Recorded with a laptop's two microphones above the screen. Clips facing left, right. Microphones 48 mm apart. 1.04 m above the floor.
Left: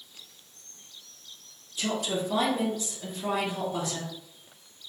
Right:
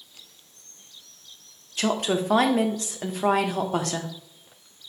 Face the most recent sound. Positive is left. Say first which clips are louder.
# right 5 dB
turn(degrees=-75)  # may be behind; listen again after turning